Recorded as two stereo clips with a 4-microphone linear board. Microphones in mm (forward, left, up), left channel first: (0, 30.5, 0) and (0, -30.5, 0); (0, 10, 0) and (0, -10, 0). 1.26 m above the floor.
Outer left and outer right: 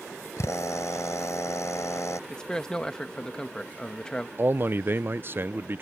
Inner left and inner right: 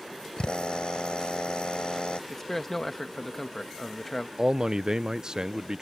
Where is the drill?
50° left (ahead or behind).